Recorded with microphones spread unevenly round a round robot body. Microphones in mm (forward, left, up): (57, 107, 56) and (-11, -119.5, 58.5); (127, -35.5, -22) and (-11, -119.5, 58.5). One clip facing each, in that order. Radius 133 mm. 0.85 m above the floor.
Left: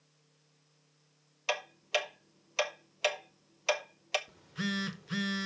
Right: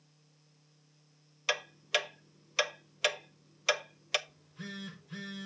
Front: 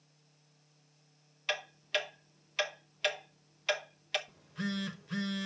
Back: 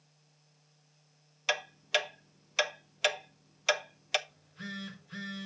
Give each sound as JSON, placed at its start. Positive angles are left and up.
{"t": 1.5, "sound": "ticking", "azimuth_deg": -145, "distance_m": 0.8}
{"t": 4.3, "sound": "a phone buzzing", "azimuth_deg": 85, "distance_m": 0.8}